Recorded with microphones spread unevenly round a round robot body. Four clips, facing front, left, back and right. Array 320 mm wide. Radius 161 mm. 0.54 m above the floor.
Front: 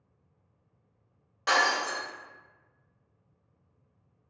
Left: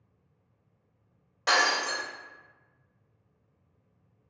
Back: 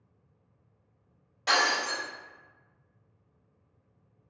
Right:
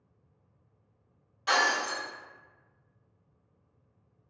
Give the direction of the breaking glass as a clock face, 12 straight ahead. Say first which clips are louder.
Left 1 dB, front 1 dB; 10 o'clock.